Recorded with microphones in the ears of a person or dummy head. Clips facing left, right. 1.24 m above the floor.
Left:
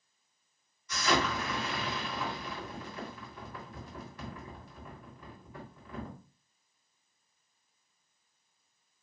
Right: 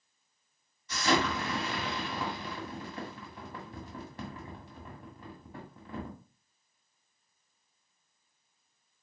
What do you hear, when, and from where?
0.9 s an explosion: 30° right (ahead or behind), 2 m